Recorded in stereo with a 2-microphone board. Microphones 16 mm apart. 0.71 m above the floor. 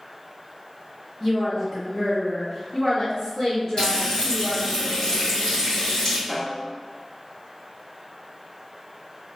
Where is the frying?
50° left (ahead or behind), 1.8 m.